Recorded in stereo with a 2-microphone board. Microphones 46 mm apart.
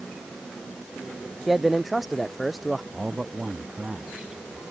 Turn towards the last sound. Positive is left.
turn(degrees=-15)  # may be behind; listen again after turning